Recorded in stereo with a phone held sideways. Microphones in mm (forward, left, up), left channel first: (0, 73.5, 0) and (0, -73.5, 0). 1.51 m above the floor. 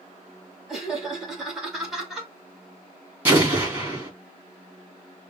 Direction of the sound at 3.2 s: 10° right (ahead or behind).